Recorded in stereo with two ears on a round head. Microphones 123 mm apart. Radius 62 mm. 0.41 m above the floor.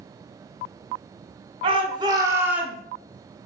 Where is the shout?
40° right (ahead or behind), 1.5 m; by 2.8 s 5° right (ahead or behind), 1.2 m.